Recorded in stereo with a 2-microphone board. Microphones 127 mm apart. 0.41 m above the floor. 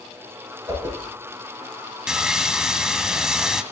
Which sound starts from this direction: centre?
Sawing, at 2.1 s.